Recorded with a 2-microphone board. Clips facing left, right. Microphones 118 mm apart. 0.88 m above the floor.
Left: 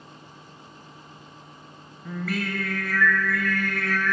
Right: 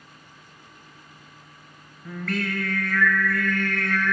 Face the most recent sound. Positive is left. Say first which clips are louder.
# right 1 dB
turn(degrees=5)  # may be behind; listen again after turning